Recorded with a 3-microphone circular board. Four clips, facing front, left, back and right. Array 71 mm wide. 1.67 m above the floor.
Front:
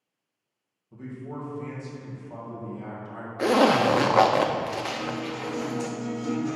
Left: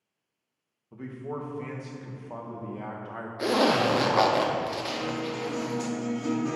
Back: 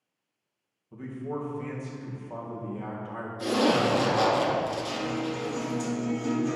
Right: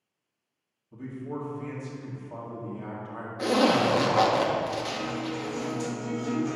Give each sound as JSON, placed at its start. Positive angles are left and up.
{"t": 0.9, "sound": "a man speaking", "azimuth_deg": 115, "distance_m": 1.6}
{"t": 3.4, "sound": "a zipper", "azimuth_deg": 5, "distance_m": 0.7}
{"t": 4.9, "sound": "a guitar", "azimuth_deg": 110, "distance_m": 3.0}